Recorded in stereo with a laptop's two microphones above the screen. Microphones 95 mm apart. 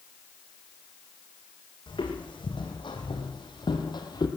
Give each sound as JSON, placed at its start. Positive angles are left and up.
{"t": 1.9, "sound": "footsteps", "side_deg": 55, "distance_m": 2.5}